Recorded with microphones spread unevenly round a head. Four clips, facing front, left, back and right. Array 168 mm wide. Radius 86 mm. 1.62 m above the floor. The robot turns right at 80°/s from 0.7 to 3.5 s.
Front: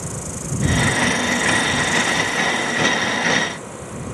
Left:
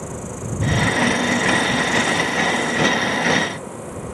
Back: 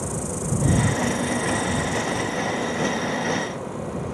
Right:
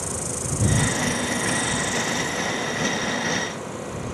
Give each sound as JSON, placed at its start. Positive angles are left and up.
{"t": 0.0, "sound": "an insect", "azimuth_deg": -85}